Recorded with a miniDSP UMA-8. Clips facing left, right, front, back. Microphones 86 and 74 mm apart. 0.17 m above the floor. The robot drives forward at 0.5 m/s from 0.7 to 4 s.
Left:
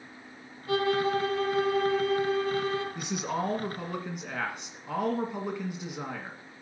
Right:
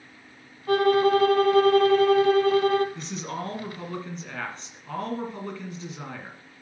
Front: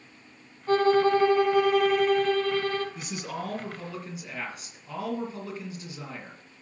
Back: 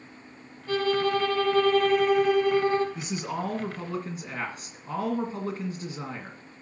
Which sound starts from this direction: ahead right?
A violin, at 0.7 s.